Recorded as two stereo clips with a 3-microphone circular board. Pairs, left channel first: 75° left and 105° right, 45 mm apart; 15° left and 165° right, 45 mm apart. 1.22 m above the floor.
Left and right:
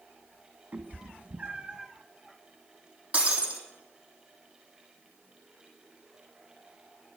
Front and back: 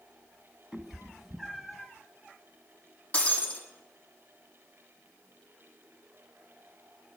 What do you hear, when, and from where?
0.7 s a cat meowing: 85° right, 1.6 m; by 1.9 s 70° right, 1.0 m
3.1 s breaking glass: 45° right, 3.5 m